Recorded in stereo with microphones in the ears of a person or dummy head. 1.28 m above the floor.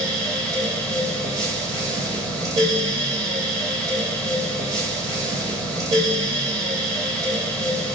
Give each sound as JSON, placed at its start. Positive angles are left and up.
{"t": 0.0, "sound": "a fan", "side_deg": -20, "distance_m": 2.0}